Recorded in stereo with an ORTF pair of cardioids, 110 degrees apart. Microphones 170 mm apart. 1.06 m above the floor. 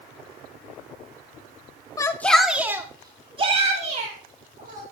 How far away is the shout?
About 1.6 m.